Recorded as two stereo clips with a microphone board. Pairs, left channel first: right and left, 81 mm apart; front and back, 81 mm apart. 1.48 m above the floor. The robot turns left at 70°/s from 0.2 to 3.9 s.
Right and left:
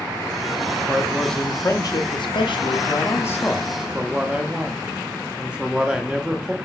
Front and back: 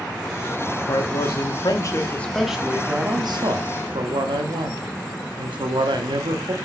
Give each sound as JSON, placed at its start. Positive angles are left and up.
{"t": 0.9, "sound": "a man speaking", "azimuth_deg": 20, "distance_m": 0.6}